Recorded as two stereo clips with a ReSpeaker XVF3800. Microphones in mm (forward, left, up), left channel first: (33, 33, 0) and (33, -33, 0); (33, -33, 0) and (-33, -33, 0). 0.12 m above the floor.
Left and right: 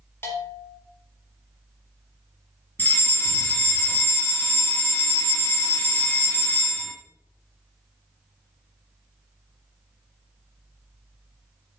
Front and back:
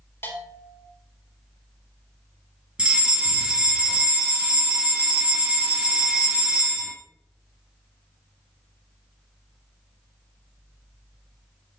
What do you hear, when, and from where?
0.2 s a bell: 45° left, 3 m
2.8 s a fire alarm: 120° left, 2.5 m